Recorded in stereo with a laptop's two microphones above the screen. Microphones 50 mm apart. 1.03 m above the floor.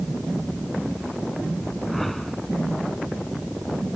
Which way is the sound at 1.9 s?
5° left (ahead or behind).